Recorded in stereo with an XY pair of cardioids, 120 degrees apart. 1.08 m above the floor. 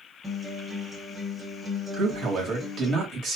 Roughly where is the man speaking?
Ahead right.